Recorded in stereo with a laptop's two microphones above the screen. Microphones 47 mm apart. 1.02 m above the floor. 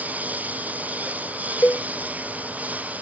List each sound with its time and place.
0.0 s a lawn mower: 35° right (ahead or behind)
1.6 s a cowbell: 50° left (ahead or behind)